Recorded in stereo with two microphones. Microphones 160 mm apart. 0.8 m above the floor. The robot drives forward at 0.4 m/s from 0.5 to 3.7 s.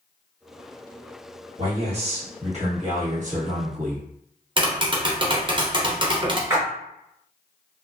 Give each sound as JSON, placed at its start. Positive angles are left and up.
{"t": 1.6, "sound": "a man speaking", "side_deg": -40, "distance_m": 1.4}
{"t": 4.6, "sound": "tapping", "side_deg": -30, "distance_m": 0.6}
{"t": 6.5, "sound": "a splash", "side_deg": -15, "distance_m": 1.0}